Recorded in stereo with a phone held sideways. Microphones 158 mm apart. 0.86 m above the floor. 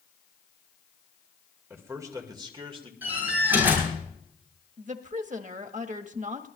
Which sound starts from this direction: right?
A woman speaking, at 4.8 s.